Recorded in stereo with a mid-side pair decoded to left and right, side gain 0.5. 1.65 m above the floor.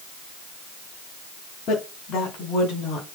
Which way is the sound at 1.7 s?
65° left.